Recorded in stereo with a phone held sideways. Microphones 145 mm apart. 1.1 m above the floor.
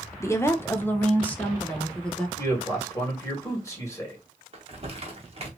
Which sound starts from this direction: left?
A man speaking, at 2.4 s.